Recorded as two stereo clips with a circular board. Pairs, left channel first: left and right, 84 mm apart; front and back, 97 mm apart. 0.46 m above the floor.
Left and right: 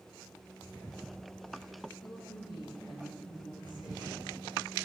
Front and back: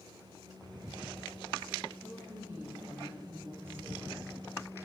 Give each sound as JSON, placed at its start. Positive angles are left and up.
{"t": 2.0, "sound": "a woman speaking", "azimuth_deg": 110, "distance_m": 8.5}